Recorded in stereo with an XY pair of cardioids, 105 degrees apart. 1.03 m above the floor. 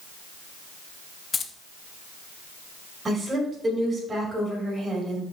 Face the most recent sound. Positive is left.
turn(degrees=-25)